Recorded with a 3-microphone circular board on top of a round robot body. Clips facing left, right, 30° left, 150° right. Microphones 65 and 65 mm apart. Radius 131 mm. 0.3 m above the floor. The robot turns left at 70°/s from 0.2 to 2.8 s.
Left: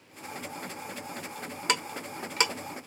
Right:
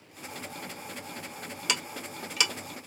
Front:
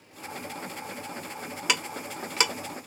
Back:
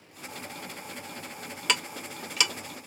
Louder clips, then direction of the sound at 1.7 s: Left 4 dB, even; 110° left.